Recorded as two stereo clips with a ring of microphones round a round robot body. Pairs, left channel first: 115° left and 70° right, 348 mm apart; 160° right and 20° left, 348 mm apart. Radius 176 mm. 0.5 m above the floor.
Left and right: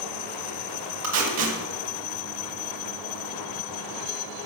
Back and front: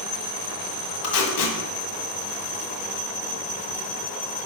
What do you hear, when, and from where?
1.0 s tape being pulled: 120° right, 1.8 m